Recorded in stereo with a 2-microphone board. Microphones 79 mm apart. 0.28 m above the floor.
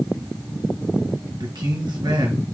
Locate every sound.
1.4 s a man speaking: 70° right (ahead or behind), 4 m